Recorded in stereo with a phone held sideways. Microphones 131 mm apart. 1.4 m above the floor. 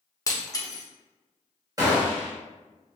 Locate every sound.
0.3 s breaking glass: 25° left (ahead or behind), 0.7 m
1.8 s a gunshot: 30° right (ahead or behind), 1.1 m